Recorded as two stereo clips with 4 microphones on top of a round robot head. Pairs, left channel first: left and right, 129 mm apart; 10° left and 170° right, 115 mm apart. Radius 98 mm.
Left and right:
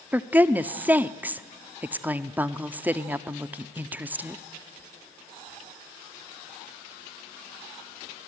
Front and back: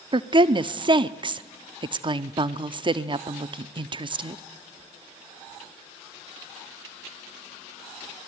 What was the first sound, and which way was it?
A woman speaking, 160° right.